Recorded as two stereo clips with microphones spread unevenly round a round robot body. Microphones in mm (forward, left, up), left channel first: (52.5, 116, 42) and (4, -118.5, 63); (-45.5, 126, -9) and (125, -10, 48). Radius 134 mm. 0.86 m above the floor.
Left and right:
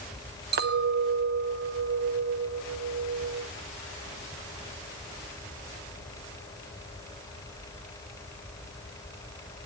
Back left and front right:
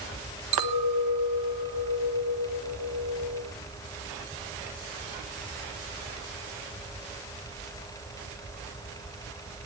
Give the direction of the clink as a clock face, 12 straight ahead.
2 o'clock.